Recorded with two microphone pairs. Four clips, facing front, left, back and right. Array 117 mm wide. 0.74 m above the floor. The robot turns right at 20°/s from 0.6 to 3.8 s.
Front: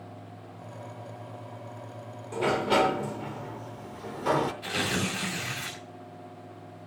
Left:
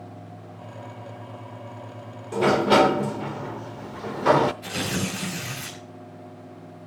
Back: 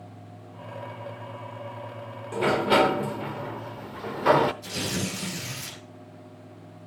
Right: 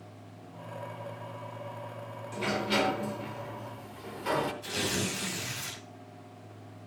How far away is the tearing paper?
About 4.5 m.